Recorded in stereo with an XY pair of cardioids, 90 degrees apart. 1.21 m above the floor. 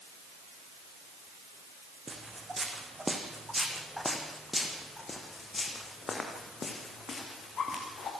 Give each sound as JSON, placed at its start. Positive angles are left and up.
{"t": 2.1, "sound": "footsteps", "azimuth_deg": -25, "distance_m": 4.0}